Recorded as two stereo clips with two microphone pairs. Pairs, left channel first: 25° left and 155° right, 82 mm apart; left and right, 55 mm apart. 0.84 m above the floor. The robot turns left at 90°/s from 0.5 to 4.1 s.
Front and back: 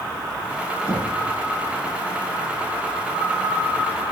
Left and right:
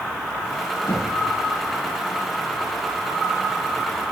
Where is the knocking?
145° left, 9.5 m; by 1.1 s 125° left, 9.5 m.